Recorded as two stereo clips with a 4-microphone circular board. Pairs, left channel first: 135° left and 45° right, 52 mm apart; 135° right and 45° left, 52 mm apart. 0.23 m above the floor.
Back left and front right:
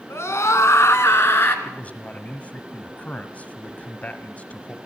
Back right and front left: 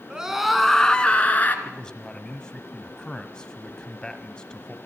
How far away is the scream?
About 2 m.